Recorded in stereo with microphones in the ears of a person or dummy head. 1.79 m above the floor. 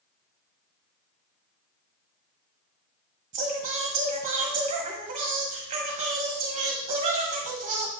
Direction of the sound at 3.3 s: 40° right (ahead or behind).